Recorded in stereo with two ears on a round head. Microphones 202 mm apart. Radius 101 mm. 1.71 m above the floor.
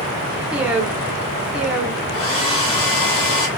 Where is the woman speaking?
5° right (ahead or behind), 0.8 m.